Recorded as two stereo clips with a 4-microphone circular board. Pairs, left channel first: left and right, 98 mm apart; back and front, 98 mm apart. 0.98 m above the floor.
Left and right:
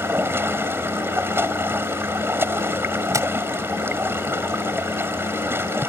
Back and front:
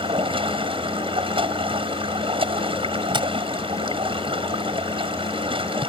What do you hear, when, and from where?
0.0 s running water: 25° right
3.1 s tapping: 30° right